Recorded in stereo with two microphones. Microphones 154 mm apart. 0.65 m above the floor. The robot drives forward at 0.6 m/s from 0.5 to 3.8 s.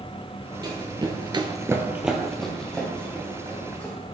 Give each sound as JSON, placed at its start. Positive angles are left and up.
{"t": 0.6, "sound": "running footsteps", "side_deg": -25, "distance_m": 1.2}